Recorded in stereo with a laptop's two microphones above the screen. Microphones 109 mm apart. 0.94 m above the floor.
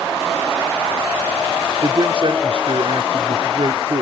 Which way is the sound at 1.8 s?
55° right (ahead or behind).